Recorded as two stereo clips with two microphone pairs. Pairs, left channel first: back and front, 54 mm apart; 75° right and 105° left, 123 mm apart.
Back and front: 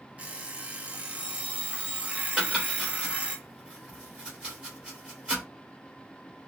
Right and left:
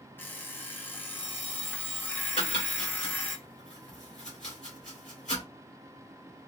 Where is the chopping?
70° right, 2.5 m.